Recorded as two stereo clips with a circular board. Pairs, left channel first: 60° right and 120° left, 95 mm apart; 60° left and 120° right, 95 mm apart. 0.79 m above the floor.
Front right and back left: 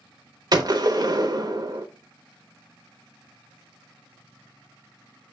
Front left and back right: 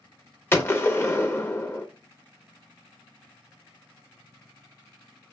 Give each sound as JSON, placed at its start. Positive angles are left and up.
{"t": 0.5, "sound": "a gunshot", "azimuth_deg": 115, "distance_m": 0.8}